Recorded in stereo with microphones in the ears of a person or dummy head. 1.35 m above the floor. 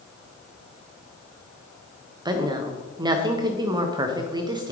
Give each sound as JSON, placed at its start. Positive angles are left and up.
{"t": 2.2, "sound": "a woman speaking", "side_deg": -25, "distance_m": 1.1}